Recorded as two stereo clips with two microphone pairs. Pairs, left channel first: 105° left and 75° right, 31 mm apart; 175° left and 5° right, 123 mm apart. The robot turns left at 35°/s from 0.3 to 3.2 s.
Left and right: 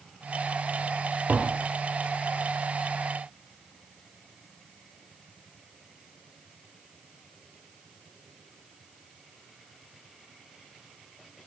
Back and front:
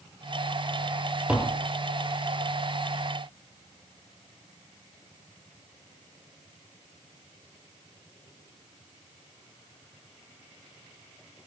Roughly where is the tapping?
Right.